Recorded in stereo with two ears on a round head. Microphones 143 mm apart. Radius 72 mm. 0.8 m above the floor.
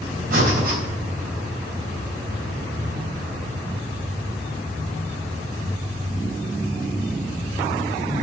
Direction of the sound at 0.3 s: 60° right (ahead or behind).